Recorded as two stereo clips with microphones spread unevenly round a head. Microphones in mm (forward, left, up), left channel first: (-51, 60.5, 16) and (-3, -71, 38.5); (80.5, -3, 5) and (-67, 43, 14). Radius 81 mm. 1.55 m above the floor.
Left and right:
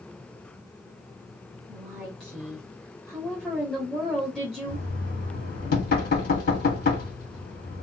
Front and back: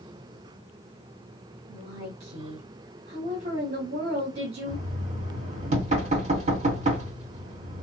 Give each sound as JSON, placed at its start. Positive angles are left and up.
{"t": 1.7, "sound": "a woman speaking", "azimuth_deg": -160, "distance_m": 1.5}
{"t": 4.7, "sound": "knocking", "azimuth_deg": 120, "distance_m": 2.0}